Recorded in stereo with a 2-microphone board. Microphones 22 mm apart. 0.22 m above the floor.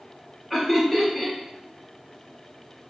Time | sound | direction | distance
0.5 | laughter | 5° right (ahead or behind) | 1.2 m